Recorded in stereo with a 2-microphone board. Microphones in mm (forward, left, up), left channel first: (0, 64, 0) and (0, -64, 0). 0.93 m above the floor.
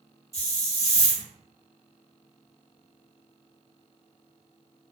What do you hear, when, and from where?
0.3 s a hiss: 25° left (ahead or behind), 1.3 m